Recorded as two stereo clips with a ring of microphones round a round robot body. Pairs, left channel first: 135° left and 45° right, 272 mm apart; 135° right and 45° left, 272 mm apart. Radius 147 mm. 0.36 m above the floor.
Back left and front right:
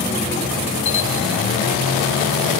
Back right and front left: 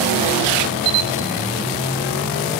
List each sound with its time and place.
0.8 s a camera shutter: 70° left, 1.2 m